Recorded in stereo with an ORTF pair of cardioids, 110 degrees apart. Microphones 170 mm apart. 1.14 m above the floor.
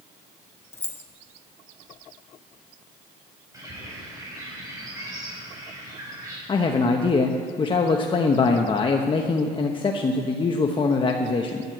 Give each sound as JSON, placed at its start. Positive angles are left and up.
{"t": 0.7, "sound": "keys jangling", "azimuth_deg": 15, "distance_m": 1.0}
{"t": 3.5, "sound": "a bird", "azimuth_deg": -20, "distance_m": 6.0}
{"t": 6.5, "sound": "a man speaking", "azimuth_deg": 30, "distance_m": 1.0}